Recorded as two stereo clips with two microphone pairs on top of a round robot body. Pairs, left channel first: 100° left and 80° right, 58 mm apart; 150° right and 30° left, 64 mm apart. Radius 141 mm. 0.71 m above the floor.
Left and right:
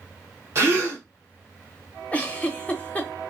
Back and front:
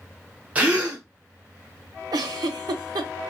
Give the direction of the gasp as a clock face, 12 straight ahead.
1 o'clock.